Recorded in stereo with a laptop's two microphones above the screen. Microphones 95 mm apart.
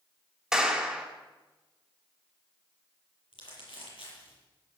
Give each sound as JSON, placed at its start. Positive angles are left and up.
{"t": 0.5, "sound": "a clap", "side_deg": -5, "distance_m": 4.0}
{"t": 3.3, "sound": "crumpling", "side_deg": 70, "distance_m": 8.0}